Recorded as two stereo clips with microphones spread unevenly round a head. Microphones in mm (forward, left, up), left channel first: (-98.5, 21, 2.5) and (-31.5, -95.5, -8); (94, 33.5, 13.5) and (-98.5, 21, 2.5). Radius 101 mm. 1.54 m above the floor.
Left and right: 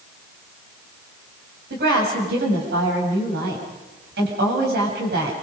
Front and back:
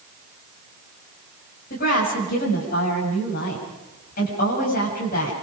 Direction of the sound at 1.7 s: 50° right.